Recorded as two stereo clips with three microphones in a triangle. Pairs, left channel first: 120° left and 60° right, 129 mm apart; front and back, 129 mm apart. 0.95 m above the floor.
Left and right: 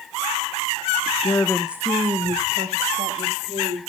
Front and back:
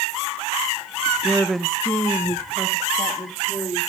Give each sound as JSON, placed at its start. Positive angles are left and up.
{"t": 1.2, "sound": "a woman speaking", "azimuth_deg": 110, "distance_m": 0.7}